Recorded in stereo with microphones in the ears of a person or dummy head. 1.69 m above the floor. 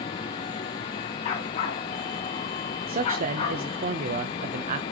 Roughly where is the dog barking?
Left.